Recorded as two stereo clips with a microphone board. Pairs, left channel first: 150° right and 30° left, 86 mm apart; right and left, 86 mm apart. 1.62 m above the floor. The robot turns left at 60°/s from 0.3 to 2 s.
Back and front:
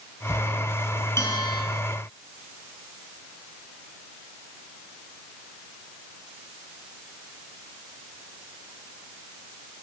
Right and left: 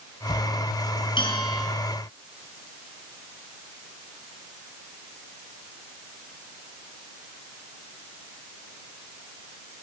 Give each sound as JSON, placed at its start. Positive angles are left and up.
{"t": 1.2, "sound": "a bell", "azimuth_deg": -90, "distance_m": 7.0}